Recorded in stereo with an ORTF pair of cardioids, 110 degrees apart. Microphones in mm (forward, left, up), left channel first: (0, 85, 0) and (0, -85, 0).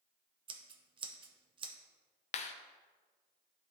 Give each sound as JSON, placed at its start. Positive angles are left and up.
{"t": 0.5, "sound": "scissors", "azimuth_deg": -30, "distance_m": 0.8}
{"t": 2.3, "sound": "a clap", "azimuth_deg": 40, "distance_m": 0.7}